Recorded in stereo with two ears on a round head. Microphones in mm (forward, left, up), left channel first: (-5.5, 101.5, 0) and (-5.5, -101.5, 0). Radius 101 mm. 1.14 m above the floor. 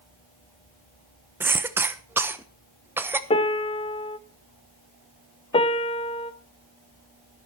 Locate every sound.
1.4 s a cough: 10° right (ahead or behind), 1.0 m
3.3 s a piano: 25° left (ahead or behind), 0.8 m
5.5 s a piano: 25° left (ahead or behind), 0.8 m